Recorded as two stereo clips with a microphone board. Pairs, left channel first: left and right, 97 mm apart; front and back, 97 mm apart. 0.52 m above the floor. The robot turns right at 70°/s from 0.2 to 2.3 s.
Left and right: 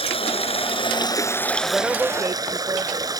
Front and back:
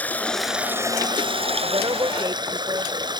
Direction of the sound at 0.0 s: 75° left.